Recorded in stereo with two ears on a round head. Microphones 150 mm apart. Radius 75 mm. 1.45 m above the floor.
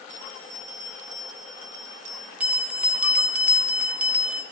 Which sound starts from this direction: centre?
A bell, at 2.4 s.